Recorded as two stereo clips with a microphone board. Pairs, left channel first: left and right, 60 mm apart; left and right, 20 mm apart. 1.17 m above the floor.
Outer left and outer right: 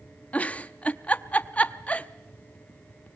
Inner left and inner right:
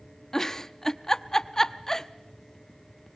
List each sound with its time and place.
0.3 s a giggle: 25° left (ahead or behind), 0.6 m